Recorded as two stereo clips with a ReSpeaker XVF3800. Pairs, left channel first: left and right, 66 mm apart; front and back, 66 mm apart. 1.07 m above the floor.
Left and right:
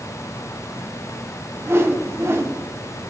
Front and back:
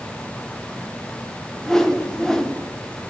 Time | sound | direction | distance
1.6 | a whoosh | 80° right | 0.8 m